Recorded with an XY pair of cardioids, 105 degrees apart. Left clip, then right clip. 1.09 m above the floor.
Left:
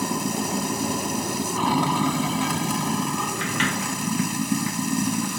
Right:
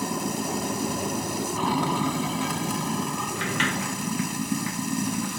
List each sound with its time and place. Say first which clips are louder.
0.0 s running water: left 2 dB; 20° left
3.4 s a sliding door: right 1 dB; straight ahead